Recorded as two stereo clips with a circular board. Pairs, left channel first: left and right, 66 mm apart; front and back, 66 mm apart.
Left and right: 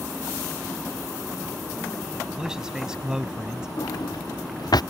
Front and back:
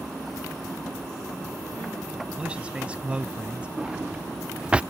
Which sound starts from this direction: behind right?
A man speaking, at 2.4 s.